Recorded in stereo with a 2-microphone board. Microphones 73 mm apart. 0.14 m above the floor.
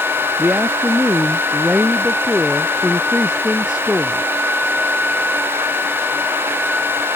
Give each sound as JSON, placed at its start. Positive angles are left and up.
{"t": 0.4, "sound": "a woman speaking", "side_deg": -15}